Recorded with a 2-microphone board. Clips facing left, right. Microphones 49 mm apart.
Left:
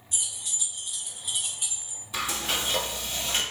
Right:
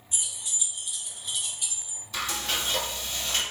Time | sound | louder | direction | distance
0.1 | keys jangling | even | 25° right (ahead or behind) | 1.2 m
2.1 | frying | left 1 dB | 15° left (ahead or behind) | 1.0 m